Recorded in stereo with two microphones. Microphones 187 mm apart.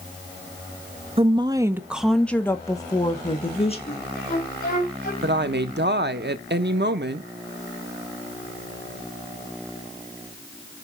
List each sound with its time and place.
1.2 s a woman speaking: 30° right (ahead or behind), 0.8 m; by 3.8 s 35° left (ahead or behind), 1.4 m
3.9 s a flute: 50° left (ahead or behind), 4 m
5.2 s a woman speaking: 65° right (ahead or behind), 0.8 m